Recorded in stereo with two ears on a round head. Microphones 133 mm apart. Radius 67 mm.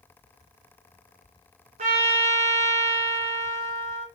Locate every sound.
1.8 s a trumpet: 55° right (ahead or behind), 2.5 m